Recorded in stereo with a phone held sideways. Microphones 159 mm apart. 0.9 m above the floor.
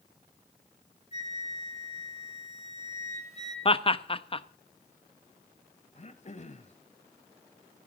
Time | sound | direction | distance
1.1 | a flute | 40° left (ahead or behind) | 4 m
3.6 | laughter | 35° left (ahead or behind) | 0.7 m
6.0 | throat clearing | 45° left (ahead or behind) | 1.1 m